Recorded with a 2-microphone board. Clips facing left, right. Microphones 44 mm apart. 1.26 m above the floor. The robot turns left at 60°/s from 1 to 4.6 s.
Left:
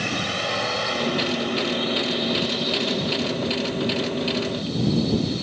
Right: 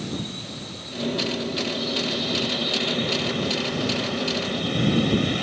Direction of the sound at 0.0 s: 85° left.